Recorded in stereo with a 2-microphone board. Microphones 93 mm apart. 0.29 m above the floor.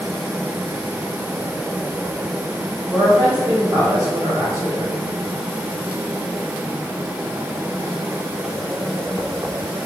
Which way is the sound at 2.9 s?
30° right (ahead or behind).